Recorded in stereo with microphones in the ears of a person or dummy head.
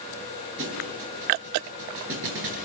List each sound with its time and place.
0.6 s a thud: 70° right (ahead or behind), 5.5 m